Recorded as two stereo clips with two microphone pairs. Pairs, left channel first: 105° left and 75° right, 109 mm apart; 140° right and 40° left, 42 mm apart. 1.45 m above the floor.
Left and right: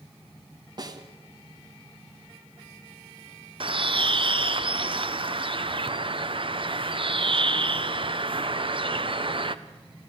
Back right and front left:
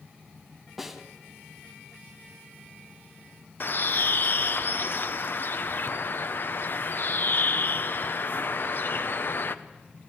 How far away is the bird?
About 0.9 m.